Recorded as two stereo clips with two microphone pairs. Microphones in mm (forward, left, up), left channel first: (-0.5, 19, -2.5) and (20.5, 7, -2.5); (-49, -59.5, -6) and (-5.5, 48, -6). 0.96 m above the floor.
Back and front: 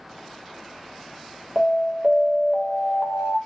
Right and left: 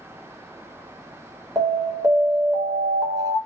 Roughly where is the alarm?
Ahead.